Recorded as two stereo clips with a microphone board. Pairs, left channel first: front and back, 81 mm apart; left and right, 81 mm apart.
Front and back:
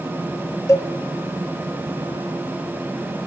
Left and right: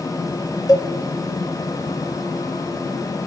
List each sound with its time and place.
0.7 s a cowbell: 50° left, 0.5 m